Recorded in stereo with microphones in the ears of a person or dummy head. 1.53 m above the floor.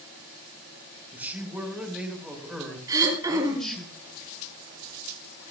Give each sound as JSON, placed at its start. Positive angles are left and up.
{"t": 1.1, "sound": "a man speaking", "side_deg": -10, "distance_m": 5.0}
{"t": 2.9, "sound": "throat clearing", "side_deg": -20, "distance_m": 6.0}